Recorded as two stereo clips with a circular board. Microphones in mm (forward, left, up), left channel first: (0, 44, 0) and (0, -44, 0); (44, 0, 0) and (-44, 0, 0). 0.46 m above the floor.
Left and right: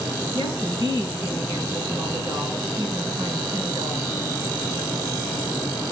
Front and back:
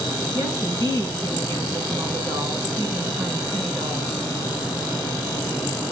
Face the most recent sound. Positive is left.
turn(degrees=-140)